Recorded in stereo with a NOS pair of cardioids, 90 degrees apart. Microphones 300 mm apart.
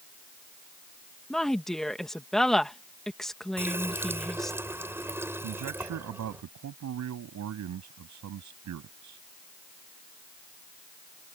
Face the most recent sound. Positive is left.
turn(degrees=-65)